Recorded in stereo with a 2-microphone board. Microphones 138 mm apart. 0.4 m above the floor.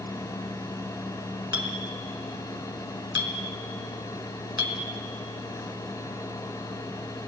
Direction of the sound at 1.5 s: 30° right (ahead or behind).